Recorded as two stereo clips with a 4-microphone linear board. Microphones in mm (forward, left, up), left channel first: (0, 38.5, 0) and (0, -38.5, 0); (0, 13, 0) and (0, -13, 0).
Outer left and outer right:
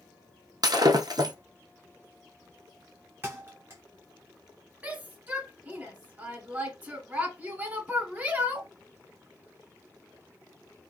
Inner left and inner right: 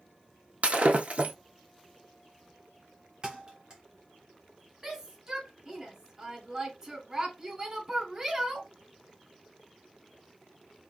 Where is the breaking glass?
60° right (ahead or behind), 0.8 m.